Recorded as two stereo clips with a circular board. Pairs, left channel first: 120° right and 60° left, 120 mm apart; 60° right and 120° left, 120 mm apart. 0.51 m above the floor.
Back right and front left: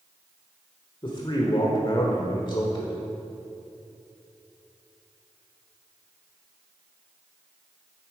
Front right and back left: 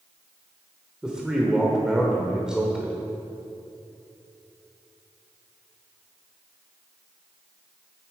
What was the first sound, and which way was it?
A man speaking, 160° right.